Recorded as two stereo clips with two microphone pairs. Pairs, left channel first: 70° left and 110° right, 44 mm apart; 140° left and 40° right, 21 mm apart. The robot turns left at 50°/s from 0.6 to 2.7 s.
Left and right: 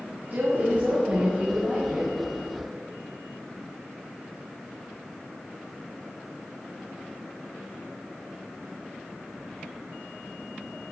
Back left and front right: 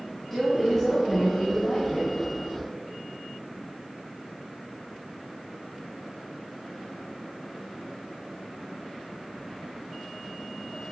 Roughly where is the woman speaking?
Behind right.